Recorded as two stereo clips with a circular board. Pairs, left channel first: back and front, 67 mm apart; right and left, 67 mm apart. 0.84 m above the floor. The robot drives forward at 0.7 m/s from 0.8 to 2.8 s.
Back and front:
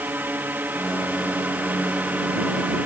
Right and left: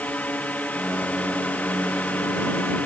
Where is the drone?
40° right; by 2.9 s 45° right.